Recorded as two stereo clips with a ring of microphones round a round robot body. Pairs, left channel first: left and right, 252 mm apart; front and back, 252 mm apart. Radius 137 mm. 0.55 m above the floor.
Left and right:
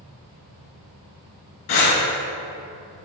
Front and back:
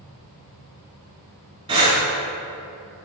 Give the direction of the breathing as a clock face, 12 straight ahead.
8 o'clock.